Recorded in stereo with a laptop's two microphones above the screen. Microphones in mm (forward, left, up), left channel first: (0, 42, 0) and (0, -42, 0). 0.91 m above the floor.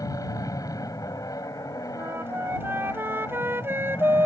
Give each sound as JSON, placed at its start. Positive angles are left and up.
{"t": 0.0, "sound": "an aircraft", "side_deg": 45}
{"t": 1.9, "sound": "a flute", "side_deg": -30}